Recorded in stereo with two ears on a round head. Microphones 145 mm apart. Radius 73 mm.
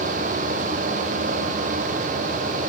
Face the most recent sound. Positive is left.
No sound to turn to.